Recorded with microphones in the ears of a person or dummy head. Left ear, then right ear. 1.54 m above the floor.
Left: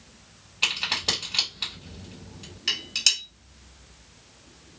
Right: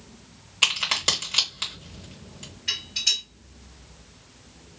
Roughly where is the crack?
Right.